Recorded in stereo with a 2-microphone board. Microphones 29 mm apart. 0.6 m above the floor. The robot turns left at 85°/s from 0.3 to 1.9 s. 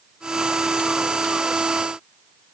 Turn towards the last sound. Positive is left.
No sound to turn to.